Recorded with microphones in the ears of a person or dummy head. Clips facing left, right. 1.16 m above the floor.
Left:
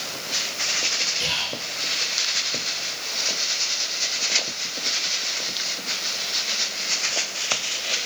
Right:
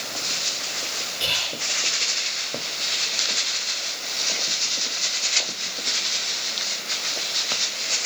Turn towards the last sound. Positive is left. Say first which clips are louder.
# left 1 dB
turn(degrees=75)  # may be behind; listen again after turning